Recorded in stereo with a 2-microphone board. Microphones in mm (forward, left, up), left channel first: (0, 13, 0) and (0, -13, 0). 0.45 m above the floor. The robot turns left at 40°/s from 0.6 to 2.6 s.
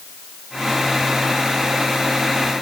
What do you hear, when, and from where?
Only background noise.